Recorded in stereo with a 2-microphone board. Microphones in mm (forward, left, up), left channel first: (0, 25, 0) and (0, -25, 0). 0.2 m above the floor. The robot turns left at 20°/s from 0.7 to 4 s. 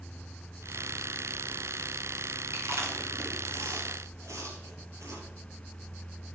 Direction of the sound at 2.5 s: 65° right (ahead or behind).